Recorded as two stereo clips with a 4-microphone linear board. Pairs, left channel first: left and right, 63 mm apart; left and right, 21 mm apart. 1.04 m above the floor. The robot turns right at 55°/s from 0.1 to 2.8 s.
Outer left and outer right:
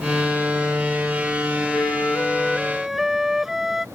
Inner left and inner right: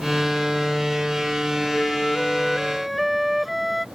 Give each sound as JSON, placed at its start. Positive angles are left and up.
{"t": 1.7, "sound": "a flute", "azimuth_deg": 125}